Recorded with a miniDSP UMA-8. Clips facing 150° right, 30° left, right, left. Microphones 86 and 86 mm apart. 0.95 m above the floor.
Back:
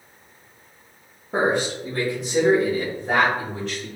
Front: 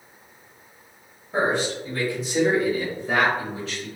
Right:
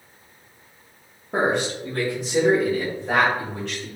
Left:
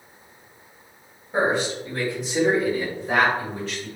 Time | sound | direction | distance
1.3 | a man speaking | 115° right | 1.0 m